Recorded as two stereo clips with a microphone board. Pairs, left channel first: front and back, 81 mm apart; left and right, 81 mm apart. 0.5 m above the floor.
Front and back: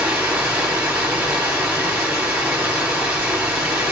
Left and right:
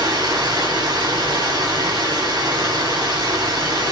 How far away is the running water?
About 1.6 m.